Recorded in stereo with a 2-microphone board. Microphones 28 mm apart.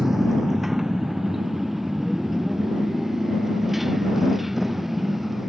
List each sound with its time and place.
0.0 s a motorcycle: 15° right (ahead or behind); by 5.5 s 5° right (ahead or behind)